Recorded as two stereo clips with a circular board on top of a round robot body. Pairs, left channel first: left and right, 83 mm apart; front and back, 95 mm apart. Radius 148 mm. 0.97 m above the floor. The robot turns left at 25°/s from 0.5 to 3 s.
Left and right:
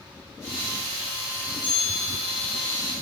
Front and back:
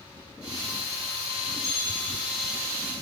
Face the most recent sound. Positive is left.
turn(degrees=-155)